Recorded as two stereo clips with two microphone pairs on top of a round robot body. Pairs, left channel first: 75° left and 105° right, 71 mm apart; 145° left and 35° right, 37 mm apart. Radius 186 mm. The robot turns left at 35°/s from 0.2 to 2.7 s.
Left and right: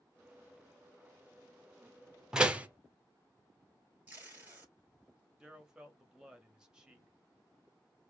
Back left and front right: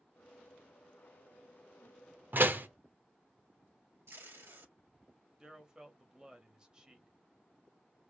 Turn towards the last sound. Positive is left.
turn(degrees=-60)